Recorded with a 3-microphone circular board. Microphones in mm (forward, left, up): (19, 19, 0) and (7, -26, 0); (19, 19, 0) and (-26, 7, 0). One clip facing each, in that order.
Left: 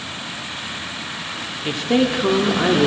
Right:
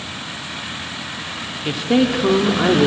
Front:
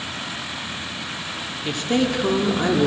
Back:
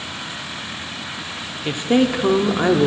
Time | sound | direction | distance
1.6 | a woman speaking | 175° left | 0.7 m